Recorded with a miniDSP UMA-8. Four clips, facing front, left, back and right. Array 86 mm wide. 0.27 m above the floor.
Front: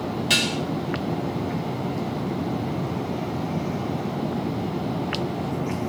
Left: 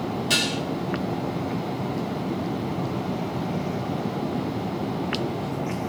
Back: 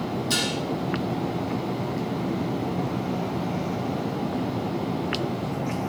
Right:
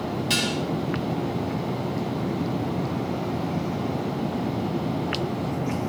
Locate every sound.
0.3 s dishes clattering: 5° right, 4 m